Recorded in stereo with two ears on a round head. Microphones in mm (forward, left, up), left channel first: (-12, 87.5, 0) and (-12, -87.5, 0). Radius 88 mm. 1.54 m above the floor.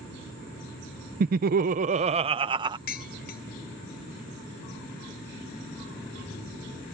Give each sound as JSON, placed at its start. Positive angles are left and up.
{"t": 1.2, "sound": "laughter", "side_deg": -45}
{"t": 2.9, "sound": "dishes clattering", "side_deg": 50}